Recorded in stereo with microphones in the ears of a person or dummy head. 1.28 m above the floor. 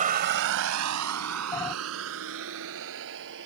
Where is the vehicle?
40° right (ahead or behind); by 3.5 s 65° right (ahead or behind).